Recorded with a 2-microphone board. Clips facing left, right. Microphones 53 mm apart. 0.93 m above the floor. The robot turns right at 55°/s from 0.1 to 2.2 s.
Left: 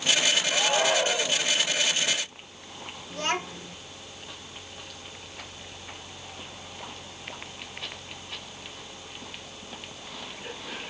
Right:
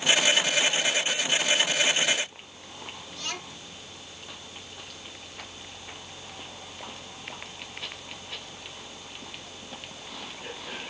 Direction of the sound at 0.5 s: 45° left.